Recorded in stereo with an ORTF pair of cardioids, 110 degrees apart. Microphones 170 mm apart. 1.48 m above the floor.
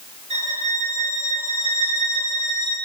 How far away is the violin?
About 5 m.